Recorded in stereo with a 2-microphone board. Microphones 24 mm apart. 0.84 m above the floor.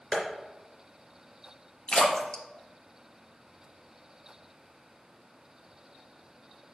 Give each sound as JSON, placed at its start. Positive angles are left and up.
{"t": 0.1, "sound": "tapping", "side_deg": 45, "distance_m": 3.5}
{"t": 1.9, "sound": "a splash", "side_deg": 40, "distance_m": 1.2}